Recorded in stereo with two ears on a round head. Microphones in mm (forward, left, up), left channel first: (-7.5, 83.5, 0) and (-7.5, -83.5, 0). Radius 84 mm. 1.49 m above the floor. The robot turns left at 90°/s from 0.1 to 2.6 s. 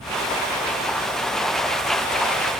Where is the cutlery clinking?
I don't hear cutlery clinking.